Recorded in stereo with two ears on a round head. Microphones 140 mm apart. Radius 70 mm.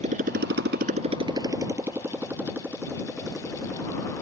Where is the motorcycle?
45° right (ahead or behind); by 4.2 s centre (ahead or behind).